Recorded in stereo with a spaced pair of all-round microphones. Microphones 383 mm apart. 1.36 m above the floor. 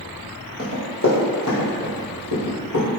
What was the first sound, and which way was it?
Running footsteps, 25° left (ahead or behind).